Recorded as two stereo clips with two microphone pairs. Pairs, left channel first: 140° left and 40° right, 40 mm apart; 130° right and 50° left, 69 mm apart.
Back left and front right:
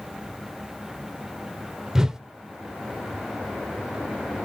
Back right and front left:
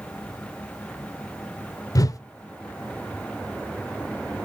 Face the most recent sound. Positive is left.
turn(degrees=-115)